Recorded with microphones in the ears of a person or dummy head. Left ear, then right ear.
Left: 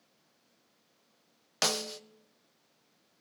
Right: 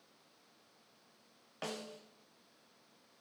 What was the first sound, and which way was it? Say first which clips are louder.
A snare drum: left 13 dB; 65° left (ahead or behind).